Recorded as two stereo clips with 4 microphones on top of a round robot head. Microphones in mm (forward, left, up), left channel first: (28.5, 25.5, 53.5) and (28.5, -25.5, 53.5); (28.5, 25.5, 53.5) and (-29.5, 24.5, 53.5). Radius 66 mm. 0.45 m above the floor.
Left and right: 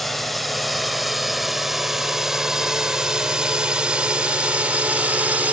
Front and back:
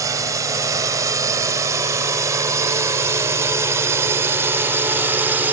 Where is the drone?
Straight behind; by 5.5 s 135° right.